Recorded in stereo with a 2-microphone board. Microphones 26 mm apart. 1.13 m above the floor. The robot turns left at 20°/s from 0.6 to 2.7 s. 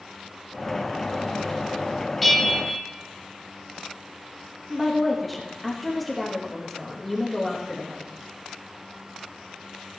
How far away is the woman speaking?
About 1.1 m.